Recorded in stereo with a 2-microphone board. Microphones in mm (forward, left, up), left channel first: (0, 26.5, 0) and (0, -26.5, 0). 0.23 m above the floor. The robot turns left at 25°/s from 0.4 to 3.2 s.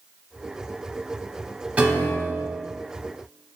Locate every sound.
1.8 s a piano: 25° right (ahead or behind), 1.0 m; by 2.6 s 35° right (ahead or behind), 1.0 m